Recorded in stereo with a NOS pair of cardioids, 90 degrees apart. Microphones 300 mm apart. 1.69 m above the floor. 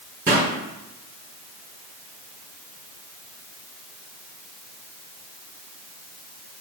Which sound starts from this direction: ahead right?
A pop, at 0.3 s.